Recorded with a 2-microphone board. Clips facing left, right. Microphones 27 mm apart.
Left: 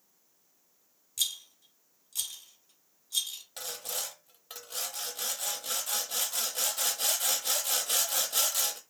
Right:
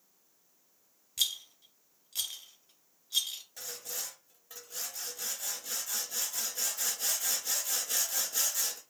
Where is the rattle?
25° right (ahead or behind), 0.7 m.